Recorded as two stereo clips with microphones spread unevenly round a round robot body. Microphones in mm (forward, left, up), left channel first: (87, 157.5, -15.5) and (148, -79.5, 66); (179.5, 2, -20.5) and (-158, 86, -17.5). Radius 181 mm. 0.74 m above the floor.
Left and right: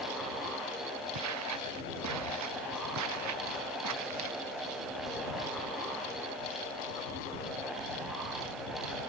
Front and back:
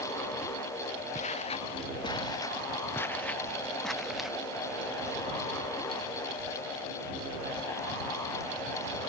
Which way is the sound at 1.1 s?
85° right.